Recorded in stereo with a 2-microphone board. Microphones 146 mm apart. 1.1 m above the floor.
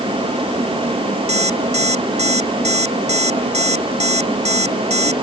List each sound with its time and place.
1.3 s an alarm clock: 50° right (ahead or behind)